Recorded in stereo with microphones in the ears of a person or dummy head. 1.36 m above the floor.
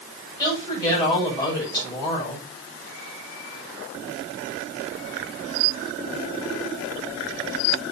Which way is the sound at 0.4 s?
25° left (ahead or behind).